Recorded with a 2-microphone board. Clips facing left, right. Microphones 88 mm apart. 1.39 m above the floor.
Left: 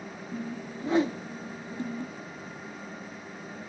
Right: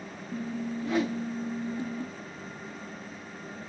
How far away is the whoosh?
About 0.8 m.